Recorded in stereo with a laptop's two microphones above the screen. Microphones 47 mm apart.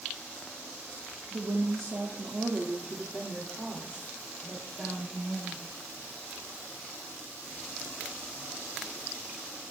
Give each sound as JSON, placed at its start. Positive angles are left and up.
{"t": 1.3, "sound": "a woman speaking", "side_deg": -80, "distance_m": 2.0}